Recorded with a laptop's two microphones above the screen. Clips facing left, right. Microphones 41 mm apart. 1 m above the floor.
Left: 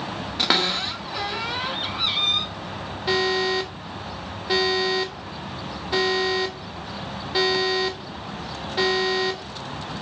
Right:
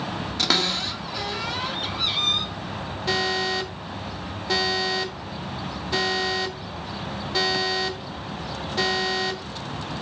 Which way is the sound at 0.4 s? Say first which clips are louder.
Left 2 dB; 20° left (ahead or behind).